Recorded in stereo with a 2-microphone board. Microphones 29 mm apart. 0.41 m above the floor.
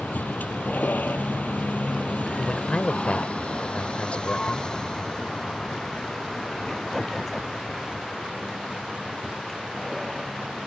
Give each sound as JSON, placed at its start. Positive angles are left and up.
{"t": 0.0, "sound": "a vehicle", "side_deg": 80}
{"t": 2.4, "sound": "a man speaking", "side_deg": 45}